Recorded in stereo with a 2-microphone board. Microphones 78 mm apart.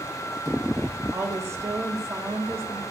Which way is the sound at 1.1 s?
40° right (ahead or behind).